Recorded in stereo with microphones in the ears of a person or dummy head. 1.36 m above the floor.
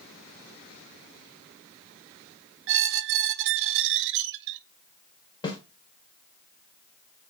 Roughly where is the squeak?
Right.